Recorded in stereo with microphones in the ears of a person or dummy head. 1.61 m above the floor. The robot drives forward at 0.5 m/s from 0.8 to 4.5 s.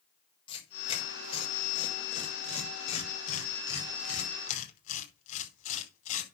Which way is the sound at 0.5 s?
30° left (ahead or behind).